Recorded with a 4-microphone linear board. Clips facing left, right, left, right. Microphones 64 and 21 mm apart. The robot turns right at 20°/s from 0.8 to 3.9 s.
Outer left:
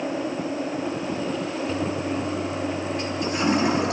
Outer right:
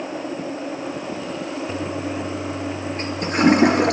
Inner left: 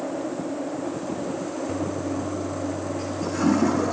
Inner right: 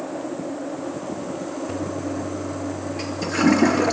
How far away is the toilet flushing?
About 3 m.